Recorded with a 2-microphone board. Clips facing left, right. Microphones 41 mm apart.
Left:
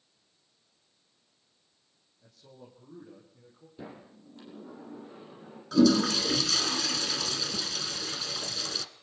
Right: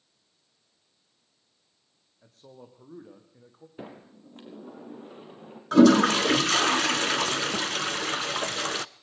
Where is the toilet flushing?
50° right (ahead or behind), 0.7 m.